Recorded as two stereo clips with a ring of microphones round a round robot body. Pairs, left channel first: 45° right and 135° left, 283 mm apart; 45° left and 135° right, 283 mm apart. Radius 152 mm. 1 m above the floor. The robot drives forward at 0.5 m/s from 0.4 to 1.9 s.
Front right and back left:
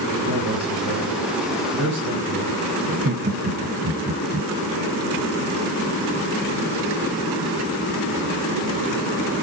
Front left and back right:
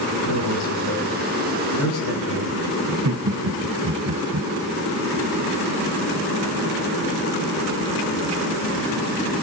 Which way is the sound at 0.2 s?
75° left.